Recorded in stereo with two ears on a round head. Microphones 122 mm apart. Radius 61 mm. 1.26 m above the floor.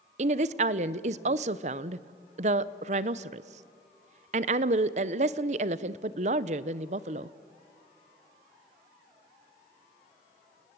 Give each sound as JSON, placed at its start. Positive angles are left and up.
{"t": 0.2, "sound": "a woman speaking", "side_deg": -50, "distance_m": 0.7}